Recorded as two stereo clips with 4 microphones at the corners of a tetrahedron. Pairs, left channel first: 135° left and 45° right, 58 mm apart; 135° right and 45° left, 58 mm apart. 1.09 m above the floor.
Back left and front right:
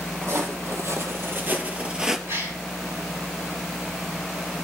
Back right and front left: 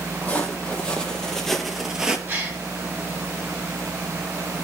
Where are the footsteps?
70° right, 2 m; by 2.2 s 20° left, 1.1 m.